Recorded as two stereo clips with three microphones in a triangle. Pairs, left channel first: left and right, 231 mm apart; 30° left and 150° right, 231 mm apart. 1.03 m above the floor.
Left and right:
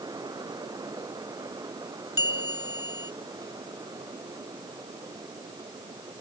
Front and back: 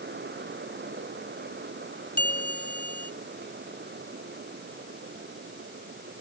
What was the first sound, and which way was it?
A bell, 70° left.